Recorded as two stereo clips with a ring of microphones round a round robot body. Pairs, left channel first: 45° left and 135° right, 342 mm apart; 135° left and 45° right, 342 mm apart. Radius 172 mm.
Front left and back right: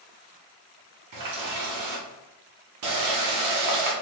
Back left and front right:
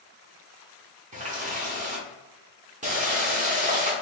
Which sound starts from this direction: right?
A running tap, at 1.1 s.